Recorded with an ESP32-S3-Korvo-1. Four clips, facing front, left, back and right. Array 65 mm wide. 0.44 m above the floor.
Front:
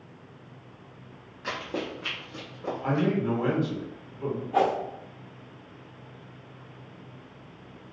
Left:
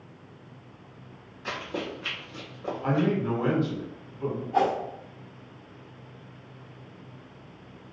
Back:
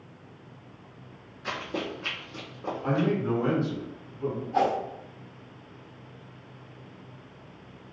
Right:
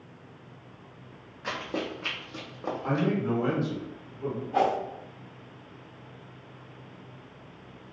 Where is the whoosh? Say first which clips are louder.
Left 1 dB, front 1 dB; 10° right, 0.6 m.